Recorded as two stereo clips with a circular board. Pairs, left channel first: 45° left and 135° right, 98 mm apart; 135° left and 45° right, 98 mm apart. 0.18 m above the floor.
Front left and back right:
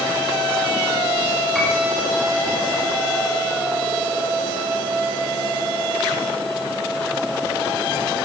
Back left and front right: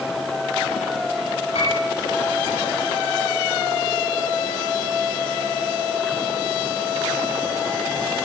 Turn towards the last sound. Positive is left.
turn(degrees=135)